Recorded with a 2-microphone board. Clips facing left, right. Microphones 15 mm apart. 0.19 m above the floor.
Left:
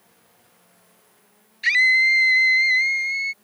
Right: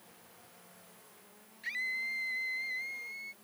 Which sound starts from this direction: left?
A scream, at 1.6 s.